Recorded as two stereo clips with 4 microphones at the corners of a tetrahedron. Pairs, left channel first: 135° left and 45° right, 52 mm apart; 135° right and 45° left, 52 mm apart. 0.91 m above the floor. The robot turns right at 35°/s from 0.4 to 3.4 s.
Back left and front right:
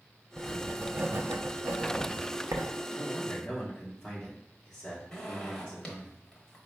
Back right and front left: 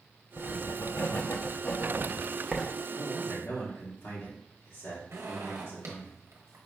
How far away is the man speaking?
About 2 m.